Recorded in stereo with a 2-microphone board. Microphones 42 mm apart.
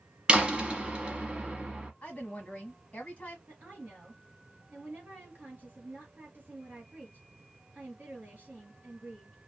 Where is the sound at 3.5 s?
45° right (ahead or behind), 2 m.